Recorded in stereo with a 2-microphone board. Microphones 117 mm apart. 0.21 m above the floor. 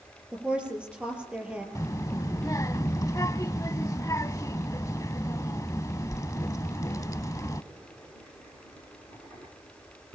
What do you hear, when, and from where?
0.3 s a woman speaking: 10° right (ahead or behind), 5.5 m
1.8 s a child speaking: 30° left (ahead or behind), 0.8 m